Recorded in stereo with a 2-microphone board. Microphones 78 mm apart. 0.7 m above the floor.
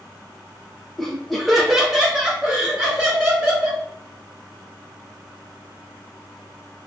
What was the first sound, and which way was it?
Laughter, 5° left (ahead or behind).